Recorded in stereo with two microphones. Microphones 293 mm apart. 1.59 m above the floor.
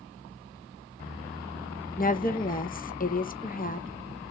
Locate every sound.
2.0 s a woman speaking: 30° left (ahead or behind), 0.7 m